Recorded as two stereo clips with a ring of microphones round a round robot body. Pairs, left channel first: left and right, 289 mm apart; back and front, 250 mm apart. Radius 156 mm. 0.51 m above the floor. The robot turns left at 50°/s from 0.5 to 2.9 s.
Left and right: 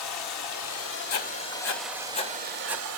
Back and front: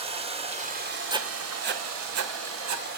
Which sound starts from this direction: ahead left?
Running water, at 0.0 s.